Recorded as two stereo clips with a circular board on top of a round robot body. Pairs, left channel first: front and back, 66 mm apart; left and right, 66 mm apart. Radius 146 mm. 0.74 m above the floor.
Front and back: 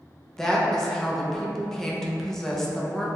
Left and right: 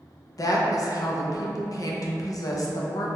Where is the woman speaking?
80° left, 0.7 m.